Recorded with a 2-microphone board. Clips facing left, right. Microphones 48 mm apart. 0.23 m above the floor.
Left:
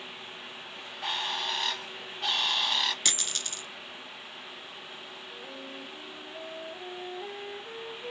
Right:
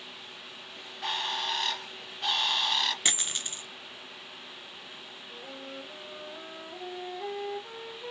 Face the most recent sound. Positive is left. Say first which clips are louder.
# right 2 dB
turn(degrees=-45)  # may be behind; listen again after turning